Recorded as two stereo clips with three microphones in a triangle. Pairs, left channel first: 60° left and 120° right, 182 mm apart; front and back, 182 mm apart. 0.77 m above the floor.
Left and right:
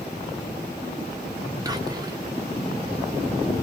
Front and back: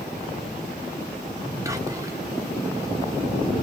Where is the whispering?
140° right, 0.6 m.